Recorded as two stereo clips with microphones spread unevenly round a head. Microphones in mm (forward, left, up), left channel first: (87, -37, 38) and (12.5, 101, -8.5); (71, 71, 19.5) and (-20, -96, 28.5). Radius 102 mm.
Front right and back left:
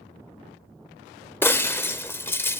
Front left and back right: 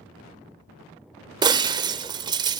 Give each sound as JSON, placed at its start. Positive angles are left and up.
{"t": 1.4, "sound": "breaking glass", "azimuth_deg": -80, "distance_m": 0.9}